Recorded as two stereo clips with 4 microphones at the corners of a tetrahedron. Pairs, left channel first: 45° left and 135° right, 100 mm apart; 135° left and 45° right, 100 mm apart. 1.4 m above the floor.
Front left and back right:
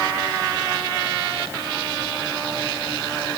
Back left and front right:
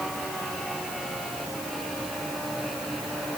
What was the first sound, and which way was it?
Only background noise.